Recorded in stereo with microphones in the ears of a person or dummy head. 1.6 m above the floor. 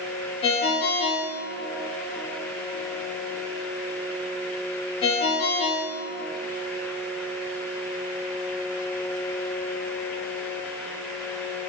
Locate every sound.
0.4 s a ringtone: 30° left (ahead or behind), 0.6 m